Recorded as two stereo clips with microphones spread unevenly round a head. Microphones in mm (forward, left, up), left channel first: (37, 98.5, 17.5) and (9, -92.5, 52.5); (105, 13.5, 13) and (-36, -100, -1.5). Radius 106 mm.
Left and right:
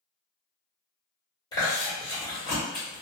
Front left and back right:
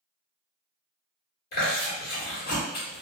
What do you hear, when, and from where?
1.5 s chewing: 5° left, 1.5 m